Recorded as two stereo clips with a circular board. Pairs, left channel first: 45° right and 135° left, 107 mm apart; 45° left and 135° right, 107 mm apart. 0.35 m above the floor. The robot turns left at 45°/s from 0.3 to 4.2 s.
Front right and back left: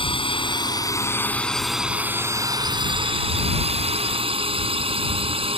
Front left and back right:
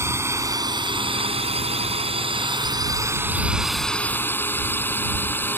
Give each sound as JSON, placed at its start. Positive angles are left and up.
{"t": 0.0, "sound": "a drone", "azimuth_deg": -75}